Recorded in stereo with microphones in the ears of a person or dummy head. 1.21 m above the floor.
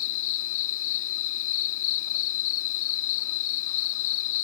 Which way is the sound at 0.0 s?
80° left.